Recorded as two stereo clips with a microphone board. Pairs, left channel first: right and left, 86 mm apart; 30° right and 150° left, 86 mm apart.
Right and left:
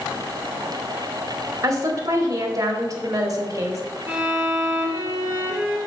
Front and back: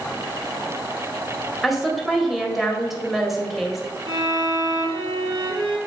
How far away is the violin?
About 3 m.